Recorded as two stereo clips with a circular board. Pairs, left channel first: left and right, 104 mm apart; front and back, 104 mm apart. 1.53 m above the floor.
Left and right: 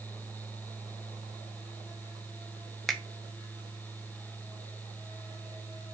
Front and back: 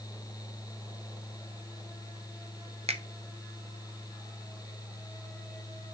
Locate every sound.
2.9 s a finger snap: straight behind, 0.8 m